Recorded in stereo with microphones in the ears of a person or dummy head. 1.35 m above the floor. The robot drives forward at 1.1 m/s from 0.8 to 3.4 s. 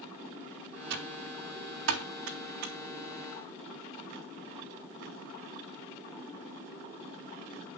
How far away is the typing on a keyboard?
About 2 m.